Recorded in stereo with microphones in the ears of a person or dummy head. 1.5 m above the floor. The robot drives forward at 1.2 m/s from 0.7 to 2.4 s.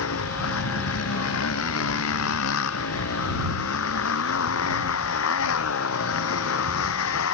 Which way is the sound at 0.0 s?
75° left (ahead or behind).